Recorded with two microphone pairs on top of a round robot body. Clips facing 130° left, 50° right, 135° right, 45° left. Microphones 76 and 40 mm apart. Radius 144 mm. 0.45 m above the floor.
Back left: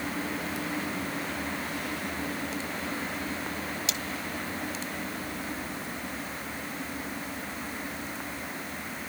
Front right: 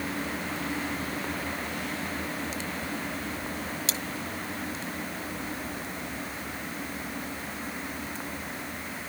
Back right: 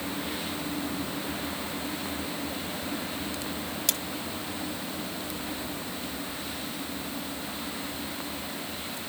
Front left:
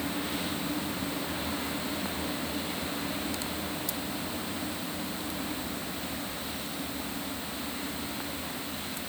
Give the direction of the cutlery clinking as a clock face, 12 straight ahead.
4 o'clock.